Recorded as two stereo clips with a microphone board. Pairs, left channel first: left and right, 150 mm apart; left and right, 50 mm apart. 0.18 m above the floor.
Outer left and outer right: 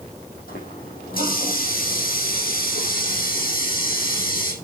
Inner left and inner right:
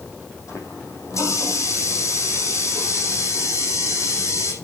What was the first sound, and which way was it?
A running tap, 75° left (ahead or behind).